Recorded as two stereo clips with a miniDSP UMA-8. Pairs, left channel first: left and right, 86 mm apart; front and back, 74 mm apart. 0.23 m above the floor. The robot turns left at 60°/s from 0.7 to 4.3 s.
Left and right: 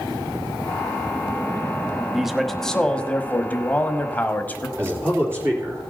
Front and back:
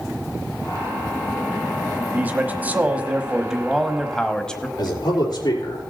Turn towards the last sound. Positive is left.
turn(degrees=-30)